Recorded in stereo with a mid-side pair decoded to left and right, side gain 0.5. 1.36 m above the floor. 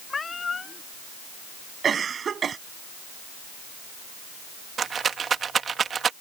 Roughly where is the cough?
Ahead right.